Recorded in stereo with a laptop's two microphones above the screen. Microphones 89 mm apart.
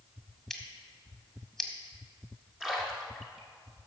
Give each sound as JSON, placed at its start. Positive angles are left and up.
{"t": 0.5, "sound": "scissors", "side_deg": 5, "distance_m": 1.8}
{"t": 2.6, "sound": "a splash", "side_deg": -5, "distance_m": 1.5}